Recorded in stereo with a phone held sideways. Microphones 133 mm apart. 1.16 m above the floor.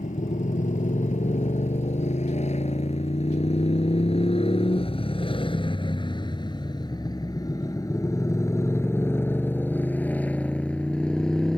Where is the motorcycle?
70° left (ahead or behind); by 11.6 s 5° left (ahead or behind).